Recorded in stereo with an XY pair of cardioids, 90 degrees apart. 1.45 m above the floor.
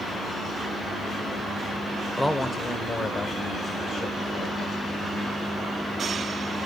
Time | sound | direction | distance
2.2 | a man speaking | 10° left | 1.0 m